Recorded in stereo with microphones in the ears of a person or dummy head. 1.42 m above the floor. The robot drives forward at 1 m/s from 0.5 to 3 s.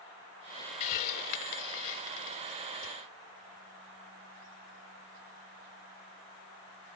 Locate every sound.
0.8 s a hiss: 40° left (ahead or behind)